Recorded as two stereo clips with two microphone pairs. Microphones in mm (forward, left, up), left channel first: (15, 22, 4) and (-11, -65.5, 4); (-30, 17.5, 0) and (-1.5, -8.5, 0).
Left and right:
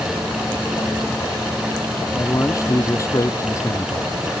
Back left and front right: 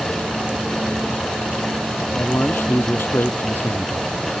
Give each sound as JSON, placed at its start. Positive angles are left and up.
{"t": 2.1, "sound": "a man speaking", "azimuth_deg": 130}